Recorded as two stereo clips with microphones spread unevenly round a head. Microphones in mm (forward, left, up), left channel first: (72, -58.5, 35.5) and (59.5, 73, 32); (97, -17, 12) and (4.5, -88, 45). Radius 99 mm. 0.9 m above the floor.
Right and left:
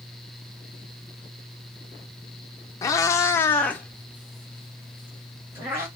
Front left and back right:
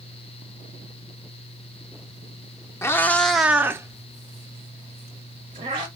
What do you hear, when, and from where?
2.8 s a cat meowing: 40° right, 0.5 m; by 5.9 s 175° left, 1.5 m